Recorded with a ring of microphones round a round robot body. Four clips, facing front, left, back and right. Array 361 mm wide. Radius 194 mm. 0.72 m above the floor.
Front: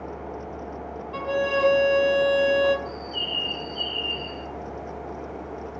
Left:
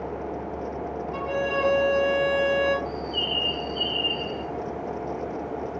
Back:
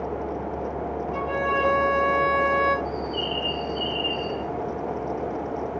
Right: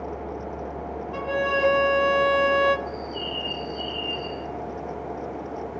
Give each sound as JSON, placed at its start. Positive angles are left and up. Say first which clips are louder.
{"t": 1.1, "sound": "a violin", "louder": "right 2 dB, front 2 dB", "azimuth_deg": -20, "distance_m": 1.8}
{"t": 2.9, "sound": "a bird", "louder": "left 1 dB, back 6 dB", "azimuth_deg": 70, "distance_m": 3.5}